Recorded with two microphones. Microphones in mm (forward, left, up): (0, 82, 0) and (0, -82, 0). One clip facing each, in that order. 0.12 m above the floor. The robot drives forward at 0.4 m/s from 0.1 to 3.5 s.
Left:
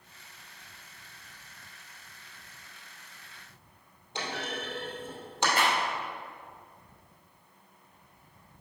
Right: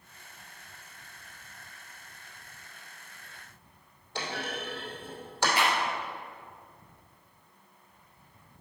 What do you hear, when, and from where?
4.2 s a clunk: 20° left (ahead or behind), 2.5 m
5.6 s a clap: 50° left (ahead or behind), 1.8 m